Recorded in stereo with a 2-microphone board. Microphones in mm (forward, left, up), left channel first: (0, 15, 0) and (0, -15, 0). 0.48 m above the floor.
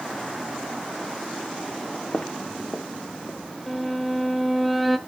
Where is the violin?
Centre (ahead or behind), 1.1 m.